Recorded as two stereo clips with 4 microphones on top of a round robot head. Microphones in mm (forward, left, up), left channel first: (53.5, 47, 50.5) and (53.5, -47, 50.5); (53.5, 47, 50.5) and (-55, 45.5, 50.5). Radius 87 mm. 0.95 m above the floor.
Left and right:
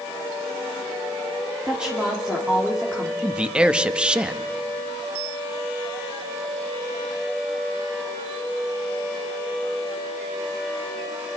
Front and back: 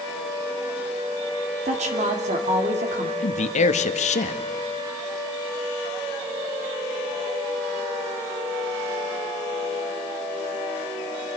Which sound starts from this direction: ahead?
A man speaking, at 3.2 s.